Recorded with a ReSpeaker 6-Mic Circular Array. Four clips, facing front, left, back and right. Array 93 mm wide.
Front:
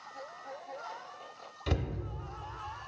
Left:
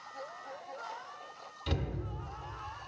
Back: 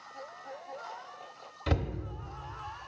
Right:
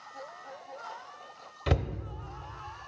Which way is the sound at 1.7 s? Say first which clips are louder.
Right 6 dB, back 2 dB; 110° right.